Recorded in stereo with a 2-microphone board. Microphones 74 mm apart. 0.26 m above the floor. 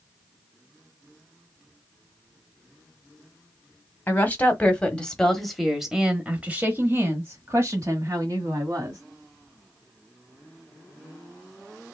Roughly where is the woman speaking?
Left.